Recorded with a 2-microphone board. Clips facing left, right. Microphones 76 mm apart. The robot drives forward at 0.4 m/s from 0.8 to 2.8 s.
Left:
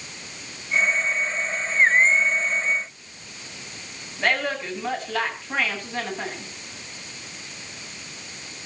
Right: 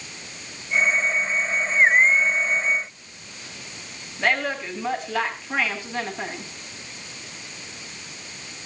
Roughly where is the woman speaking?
Centre.